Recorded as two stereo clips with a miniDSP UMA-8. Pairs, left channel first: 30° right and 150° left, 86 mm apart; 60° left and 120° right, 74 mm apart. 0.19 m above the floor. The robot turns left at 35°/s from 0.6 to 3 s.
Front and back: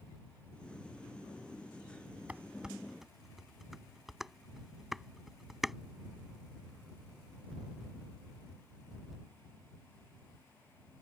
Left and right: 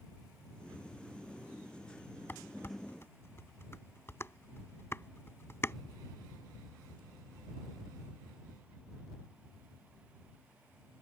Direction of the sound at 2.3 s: 90° left.